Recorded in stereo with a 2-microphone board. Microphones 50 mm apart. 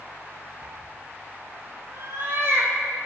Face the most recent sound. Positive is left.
turn(degrees=-50)  # may be behind; listen again after turning